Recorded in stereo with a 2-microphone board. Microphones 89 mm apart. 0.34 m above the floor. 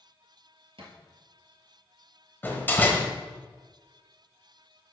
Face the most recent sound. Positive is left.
turn(degrees=25)  # may be behind; listen again after turning